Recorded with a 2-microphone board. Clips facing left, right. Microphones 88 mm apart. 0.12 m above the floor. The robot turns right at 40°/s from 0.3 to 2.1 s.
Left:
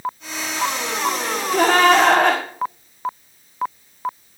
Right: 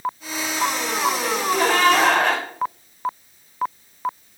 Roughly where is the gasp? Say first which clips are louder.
Left 2 dB; ahead left.